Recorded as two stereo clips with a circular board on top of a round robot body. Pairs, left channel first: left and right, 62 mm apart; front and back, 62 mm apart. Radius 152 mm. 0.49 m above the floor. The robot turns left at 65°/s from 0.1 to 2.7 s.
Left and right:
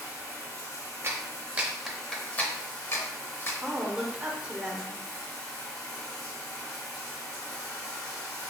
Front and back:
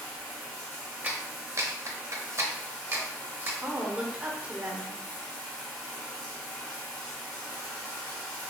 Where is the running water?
Straight behind, 1.0 m; by 8.5 s 10° left, 1.0 m.